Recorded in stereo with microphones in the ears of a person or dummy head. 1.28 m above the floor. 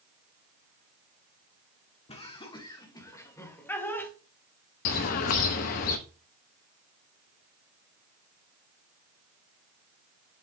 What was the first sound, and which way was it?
Laughter, 30° left (ahead or behind).